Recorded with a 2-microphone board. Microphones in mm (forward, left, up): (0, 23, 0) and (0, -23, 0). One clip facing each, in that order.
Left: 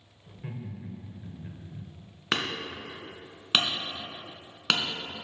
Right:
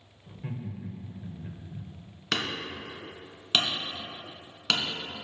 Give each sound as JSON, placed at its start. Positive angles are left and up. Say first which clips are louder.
{"t": 0.3, "sound": "laughter", "louder": "right 2 dB", "side_deg": 0, "distance_m": 1.0}
{"t": 2.3, "sound": "hammering", "louder": "left 1 dB", "side_deg": 20, "distance_m": 1.3}